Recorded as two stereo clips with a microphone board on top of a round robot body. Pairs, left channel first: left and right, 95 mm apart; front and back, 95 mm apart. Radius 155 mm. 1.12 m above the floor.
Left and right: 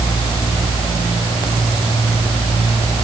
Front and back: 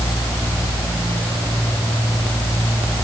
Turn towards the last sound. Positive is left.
No sound to turn to.